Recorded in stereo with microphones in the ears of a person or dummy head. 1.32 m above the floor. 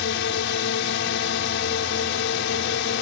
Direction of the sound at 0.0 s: 65° left (ahead or behind).